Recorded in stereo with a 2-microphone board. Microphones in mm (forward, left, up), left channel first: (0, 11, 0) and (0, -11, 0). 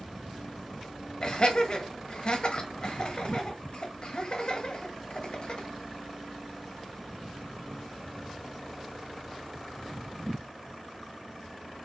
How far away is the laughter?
About 1.3 m.